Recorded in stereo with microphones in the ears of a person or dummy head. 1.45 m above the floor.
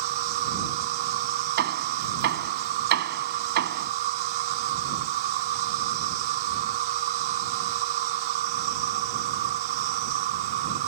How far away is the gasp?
I don't hear a gasp.